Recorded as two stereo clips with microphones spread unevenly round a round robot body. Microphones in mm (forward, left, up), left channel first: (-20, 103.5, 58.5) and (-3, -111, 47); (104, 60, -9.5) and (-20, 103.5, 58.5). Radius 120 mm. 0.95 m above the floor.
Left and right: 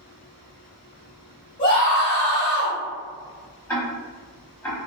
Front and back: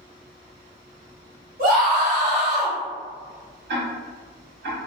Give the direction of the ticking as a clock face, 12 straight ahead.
6 o'clock.